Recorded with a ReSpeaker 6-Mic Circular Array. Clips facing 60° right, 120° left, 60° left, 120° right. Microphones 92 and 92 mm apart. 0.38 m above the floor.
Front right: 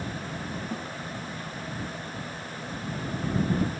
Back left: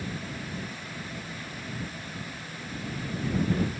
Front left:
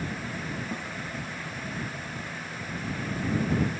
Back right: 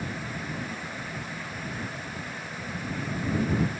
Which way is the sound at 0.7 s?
15° right.